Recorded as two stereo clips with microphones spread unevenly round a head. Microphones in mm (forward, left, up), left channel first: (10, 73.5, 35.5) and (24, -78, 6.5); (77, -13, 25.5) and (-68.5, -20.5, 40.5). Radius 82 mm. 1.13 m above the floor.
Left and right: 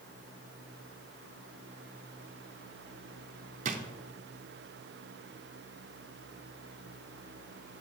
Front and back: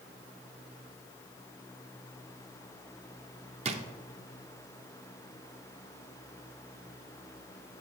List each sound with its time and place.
3.6 s a drawer: 135° right, 0.6 m